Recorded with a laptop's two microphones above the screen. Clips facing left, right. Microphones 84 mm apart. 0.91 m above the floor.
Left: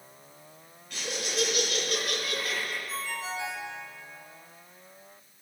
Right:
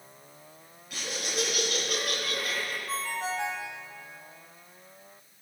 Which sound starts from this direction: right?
A ringtone, at 2.9 s.